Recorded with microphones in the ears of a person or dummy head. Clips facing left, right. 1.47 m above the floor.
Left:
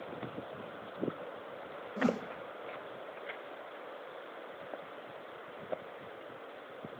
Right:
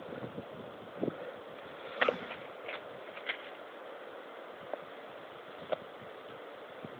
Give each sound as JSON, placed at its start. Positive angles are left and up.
{"t": 2.0, "sound": "a whoosh", "side_deg": 65, "distance_m": 1.5}